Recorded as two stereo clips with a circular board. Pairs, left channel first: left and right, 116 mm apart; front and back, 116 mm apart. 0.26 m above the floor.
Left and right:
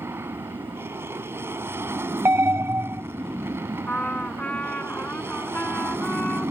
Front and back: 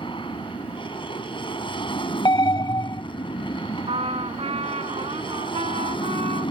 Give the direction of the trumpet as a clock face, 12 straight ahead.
6 o'clock.